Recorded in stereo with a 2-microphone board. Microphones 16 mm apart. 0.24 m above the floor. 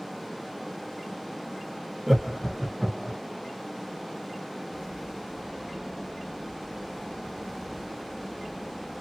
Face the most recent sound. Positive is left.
turn(degrees=-30)  # may be behind; listen again after turning